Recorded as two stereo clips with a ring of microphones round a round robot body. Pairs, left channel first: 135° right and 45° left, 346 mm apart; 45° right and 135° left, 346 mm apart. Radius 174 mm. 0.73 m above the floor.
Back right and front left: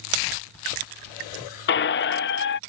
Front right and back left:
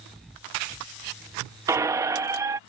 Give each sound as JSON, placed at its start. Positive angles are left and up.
{"t": 1.7, "sound": "a squeak", "azimuth_deg": -150}